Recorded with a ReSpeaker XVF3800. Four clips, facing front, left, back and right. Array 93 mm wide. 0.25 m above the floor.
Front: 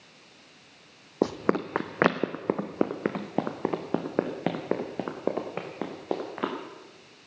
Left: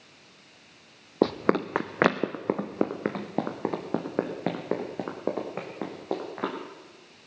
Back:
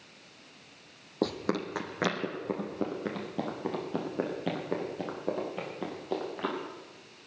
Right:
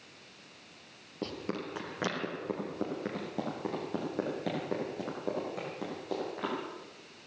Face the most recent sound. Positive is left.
turn(degrees=30)